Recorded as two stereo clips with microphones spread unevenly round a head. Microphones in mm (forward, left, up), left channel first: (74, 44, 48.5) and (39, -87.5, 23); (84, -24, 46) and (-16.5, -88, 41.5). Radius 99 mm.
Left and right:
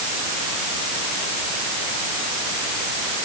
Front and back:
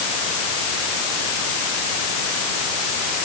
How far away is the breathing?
I don't hear breathing.